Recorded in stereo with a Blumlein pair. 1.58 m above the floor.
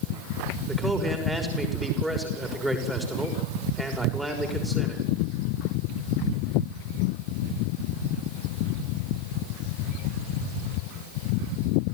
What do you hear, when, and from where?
0.7 s a man speaking: 5° right, 6 m